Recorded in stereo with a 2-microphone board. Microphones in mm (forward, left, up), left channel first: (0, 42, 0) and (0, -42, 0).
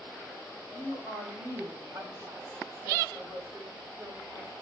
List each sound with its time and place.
0.7 s a woman speaking: 25° right (ahead or behind), 3 m; by 4.5 s 60° right (ahead or behind), 3.5 m